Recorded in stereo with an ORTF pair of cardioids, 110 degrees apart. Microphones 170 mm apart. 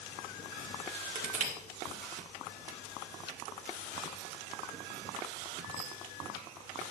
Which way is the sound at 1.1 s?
50° right.